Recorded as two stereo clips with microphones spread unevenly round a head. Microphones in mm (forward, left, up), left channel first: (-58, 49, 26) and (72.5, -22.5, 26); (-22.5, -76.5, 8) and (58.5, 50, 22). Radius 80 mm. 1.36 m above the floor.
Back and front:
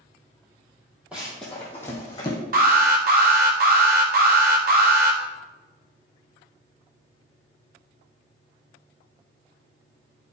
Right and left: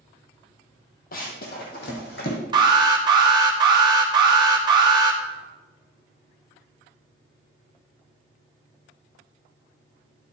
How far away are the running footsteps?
About 2 m.